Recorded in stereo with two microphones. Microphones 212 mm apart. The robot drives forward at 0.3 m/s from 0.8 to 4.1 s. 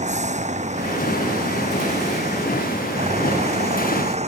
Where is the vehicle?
35° right (ahead or behind); by 4.3 s 30° right (ahead or behind).